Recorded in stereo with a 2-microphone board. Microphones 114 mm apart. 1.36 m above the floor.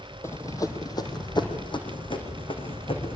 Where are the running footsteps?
25° left (ahead or behind), 2.5 m; by 3.2 s 55° left (ahead or behind), 5 m.